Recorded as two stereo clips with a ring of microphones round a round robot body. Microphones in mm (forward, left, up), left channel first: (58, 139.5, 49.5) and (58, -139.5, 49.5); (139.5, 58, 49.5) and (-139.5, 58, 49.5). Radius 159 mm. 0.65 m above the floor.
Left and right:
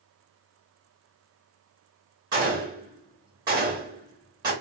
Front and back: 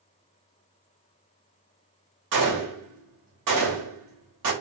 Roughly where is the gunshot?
Behind.